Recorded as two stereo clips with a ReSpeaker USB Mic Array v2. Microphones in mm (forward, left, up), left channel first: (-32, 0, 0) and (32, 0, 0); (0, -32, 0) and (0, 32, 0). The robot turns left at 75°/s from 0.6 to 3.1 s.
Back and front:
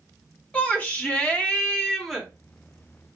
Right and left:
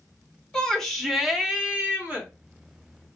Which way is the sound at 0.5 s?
150° right.